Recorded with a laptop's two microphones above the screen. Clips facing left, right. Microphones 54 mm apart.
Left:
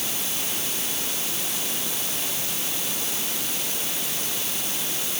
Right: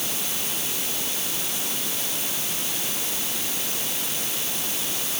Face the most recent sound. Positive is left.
No sound to turn to.